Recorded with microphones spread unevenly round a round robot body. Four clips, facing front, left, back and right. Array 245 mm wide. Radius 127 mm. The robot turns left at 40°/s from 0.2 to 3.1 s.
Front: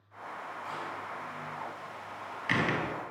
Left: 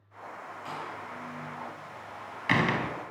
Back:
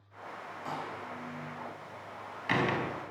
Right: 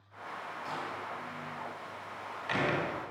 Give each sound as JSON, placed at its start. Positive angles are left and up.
{"t": 0.7, "sound": "a door slam", "azimuth_deg": 170, "distance_m": 3.5}